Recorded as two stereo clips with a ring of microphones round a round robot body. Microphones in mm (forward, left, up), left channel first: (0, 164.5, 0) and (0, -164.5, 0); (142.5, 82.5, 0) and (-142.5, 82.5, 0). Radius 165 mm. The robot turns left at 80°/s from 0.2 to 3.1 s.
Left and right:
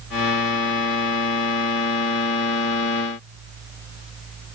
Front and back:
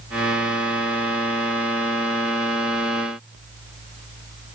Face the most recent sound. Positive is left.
No sound to turn to.